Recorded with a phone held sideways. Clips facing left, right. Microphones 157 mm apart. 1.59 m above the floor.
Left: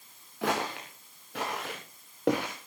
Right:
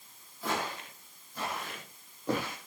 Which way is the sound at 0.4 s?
75° left (ahead or behind).